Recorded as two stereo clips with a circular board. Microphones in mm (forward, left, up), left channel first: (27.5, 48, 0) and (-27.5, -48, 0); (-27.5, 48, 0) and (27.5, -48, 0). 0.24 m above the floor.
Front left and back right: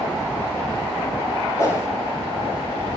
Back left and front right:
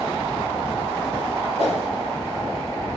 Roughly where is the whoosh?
Behind left.